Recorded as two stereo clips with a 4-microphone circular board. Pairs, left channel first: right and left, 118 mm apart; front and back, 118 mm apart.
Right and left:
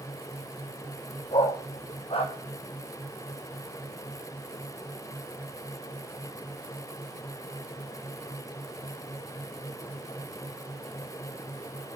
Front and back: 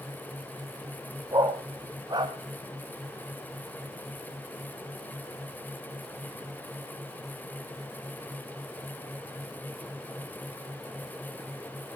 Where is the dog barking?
125° right, 2.5 m.